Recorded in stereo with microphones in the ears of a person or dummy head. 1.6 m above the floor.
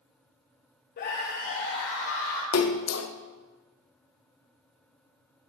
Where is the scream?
45° left (ahead or behind), 0.8 m; by 2.4 s 70° left (ahead or behind), 3 m.